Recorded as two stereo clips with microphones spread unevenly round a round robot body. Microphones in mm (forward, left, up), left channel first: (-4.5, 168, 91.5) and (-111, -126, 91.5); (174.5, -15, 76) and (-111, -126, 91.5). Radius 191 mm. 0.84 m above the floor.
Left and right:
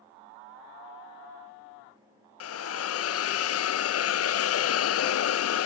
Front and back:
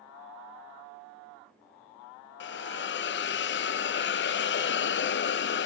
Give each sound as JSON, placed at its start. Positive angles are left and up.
{"t": 2.4, "sound": "a hiss", "azimuth_deg": 55, "distance_m": 0.5}